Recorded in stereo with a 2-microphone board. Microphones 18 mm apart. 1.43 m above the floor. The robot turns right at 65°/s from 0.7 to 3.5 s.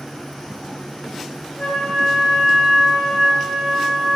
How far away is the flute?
About 5 m.